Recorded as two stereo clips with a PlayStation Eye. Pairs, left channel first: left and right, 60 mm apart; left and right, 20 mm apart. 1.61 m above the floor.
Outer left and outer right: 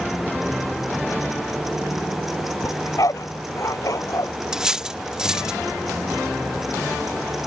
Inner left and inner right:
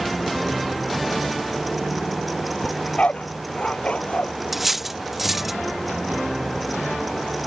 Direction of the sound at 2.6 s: 65° left (ahead or behind).